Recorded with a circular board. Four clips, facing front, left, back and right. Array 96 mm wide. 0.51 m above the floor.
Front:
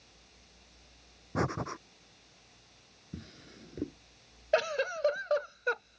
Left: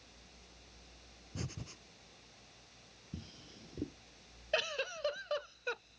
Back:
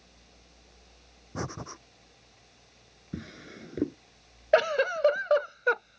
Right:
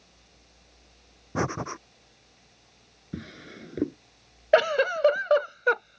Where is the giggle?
115° right.